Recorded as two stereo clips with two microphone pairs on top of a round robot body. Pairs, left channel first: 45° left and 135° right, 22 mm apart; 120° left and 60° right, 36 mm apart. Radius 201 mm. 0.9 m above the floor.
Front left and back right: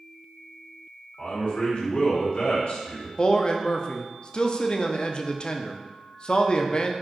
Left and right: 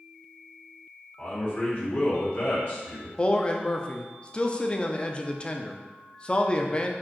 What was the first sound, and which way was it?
A man speaking, 75° left.